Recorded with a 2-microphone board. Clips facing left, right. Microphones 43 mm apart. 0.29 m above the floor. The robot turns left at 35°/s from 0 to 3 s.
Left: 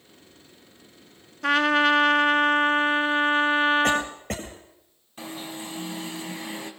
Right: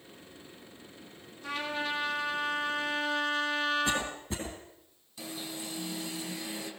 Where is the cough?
80° left, 7.5 m.